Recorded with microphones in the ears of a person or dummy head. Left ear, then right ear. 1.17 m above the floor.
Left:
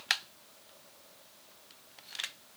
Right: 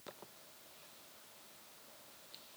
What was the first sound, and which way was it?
Only background noise.